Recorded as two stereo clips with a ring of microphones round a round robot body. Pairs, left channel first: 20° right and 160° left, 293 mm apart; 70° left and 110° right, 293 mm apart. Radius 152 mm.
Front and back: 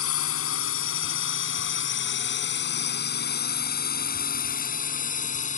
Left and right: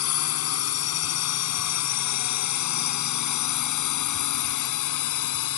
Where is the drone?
25° left; by 5.6 s 45° left.